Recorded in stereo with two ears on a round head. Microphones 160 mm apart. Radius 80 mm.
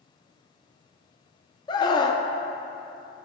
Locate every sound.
1.7 s a scream: 25° left (ahead or behind), 0.6 m